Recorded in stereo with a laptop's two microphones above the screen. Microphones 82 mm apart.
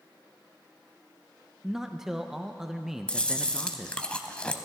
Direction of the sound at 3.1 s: 15° left (ahead or behind).